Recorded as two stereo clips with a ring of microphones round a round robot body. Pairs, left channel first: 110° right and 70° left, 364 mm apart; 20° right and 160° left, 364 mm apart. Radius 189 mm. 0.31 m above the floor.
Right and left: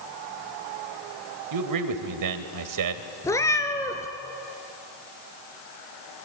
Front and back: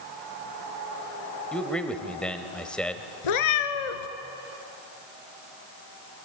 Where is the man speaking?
65° left, 1.8 m.